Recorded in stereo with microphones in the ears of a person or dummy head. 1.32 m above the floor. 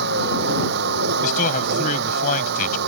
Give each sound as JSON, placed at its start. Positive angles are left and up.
{"t": 0.0, "sound": "a vehicle", "side_deg": -60}
{"t": 1.2, "sound": "a man speaking", "side_deg": 45}